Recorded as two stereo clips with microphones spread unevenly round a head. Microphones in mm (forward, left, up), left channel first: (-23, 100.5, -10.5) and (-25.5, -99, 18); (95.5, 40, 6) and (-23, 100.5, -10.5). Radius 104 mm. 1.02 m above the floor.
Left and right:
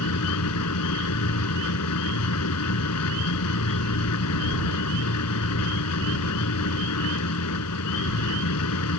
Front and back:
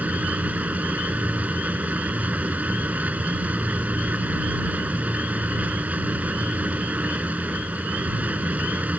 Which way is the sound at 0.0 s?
75° left.